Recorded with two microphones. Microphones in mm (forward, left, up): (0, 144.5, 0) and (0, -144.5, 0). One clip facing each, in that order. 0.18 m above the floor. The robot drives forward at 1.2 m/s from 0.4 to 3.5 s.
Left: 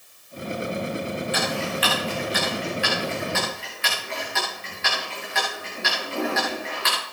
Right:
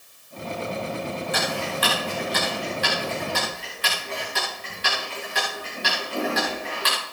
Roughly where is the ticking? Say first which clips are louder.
Left 1 dB; right.